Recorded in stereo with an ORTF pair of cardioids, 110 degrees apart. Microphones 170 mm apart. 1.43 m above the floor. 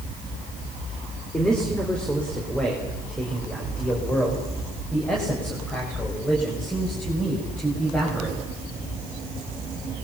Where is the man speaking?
5° left, 4 m.